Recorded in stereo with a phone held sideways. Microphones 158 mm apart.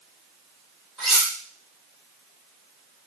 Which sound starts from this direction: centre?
Cutlery clinking, at 1.0 s.